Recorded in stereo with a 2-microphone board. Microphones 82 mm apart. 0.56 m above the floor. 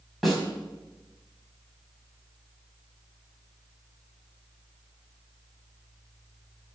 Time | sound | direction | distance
0.2 | a snare drum | centre (ahead or behind) | 4.5 m